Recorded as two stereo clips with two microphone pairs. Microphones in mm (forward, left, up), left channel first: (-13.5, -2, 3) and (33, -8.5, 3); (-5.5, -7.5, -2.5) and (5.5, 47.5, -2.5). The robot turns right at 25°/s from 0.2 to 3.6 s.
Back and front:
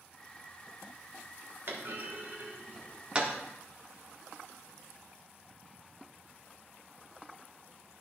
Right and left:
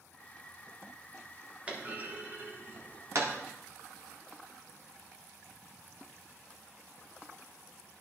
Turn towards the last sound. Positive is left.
turn(degrees=65)